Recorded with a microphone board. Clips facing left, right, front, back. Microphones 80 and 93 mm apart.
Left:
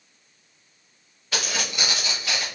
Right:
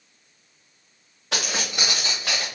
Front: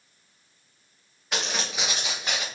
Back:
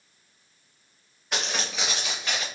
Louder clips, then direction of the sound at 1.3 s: Even, even; 90° right.